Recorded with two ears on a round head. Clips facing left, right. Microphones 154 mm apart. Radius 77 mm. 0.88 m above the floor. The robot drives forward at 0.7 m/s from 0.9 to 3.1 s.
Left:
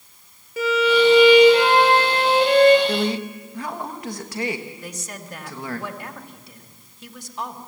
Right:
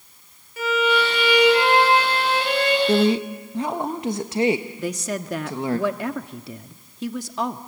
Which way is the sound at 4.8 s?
65° right (ahead or behind).